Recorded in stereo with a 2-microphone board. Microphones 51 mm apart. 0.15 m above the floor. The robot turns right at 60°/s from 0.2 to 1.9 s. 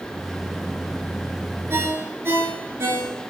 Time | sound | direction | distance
1.7 | a ringtone | 55° right (ahead or behind) | 1.6 m